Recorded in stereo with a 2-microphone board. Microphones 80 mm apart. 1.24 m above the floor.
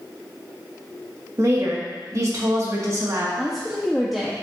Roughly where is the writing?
I don't hear writing.